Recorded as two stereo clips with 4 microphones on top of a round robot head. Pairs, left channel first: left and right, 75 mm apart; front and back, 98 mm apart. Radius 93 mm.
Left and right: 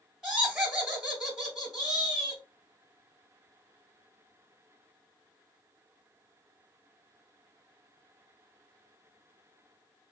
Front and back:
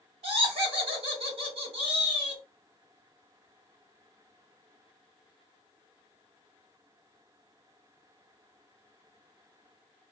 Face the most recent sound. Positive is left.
turn(degrees=-170)